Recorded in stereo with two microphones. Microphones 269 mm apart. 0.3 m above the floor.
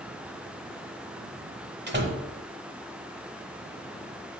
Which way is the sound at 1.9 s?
40° right (ahead or behind).